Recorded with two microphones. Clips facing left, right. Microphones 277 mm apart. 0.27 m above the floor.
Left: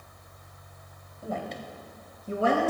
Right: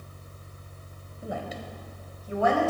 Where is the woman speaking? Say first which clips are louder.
Left 1 dB; 15° right (ahead or behind), 1.2 m; by 2.7 s 40° left (ahead or behind), 1.4 m.